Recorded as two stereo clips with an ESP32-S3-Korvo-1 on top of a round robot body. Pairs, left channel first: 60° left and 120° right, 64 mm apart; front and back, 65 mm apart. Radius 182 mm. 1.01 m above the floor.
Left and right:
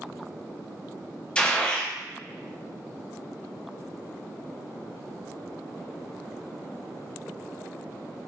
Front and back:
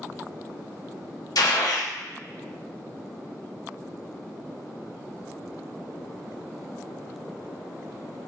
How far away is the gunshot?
About 0.7 m.